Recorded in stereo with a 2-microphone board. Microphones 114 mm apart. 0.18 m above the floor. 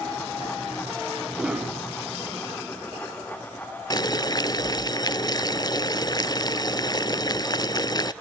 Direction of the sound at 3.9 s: 35° left (ahead or behind).